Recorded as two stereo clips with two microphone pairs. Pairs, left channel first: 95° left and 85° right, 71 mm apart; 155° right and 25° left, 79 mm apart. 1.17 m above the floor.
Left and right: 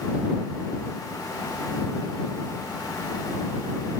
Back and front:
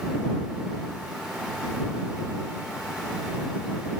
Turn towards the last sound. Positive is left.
No sound to turn to.